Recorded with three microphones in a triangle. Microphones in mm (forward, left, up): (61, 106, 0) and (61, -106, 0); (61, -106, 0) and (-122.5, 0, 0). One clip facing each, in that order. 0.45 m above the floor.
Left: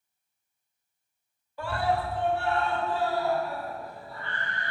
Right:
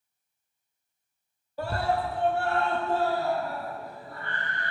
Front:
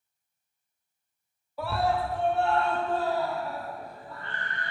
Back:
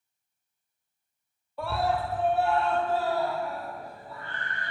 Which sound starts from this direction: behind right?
A scream, at 1.6 s.